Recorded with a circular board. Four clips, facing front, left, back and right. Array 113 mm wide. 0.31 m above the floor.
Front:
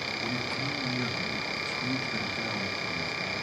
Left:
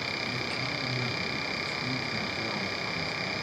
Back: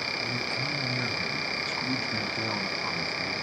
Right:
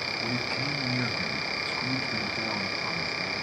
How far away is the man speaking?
About 1.9 m.